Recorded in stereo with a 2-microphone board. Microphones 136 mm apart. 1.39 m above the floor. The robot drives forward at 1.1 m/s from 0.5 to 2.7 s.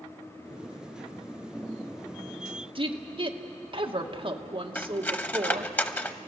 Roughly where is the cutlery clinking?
Centre.